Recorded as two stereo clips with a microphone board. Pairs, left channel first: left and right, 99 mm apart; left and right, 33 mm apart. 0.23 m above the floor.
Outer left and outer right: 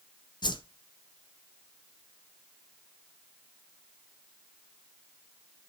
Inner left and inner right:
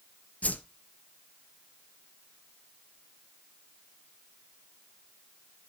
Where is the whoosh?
50° left (ahead or behind), 0.7 m.